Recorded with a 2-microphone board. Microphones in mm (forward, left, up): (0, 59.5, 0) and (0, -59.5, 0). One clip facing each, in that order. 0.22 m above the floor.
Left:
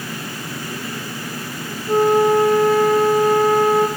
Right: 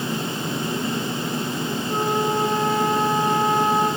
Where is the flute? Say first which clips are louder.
Left 10 dB; 50° left (ahead or behind), 4.5 m.